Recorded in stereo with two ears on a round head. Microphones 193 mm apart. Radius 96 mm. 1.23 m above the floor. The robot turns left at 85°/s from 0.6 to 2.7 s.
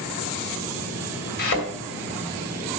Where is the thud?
45° left (ahead or behind), 2.5 m; by 1.7 s 65° left (ahead or behind), 2.5 m.